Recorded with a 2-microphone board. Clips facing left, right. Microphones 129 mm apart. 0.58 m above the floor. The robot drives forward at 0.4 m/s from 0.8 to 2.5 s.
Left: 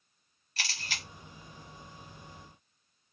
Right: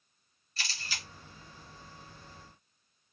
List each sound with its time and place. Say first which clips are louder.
0.6 s a camera shutter: left 2 dB; 85° left, 1.8 m; by 1.0 s 80° left, 1.8 m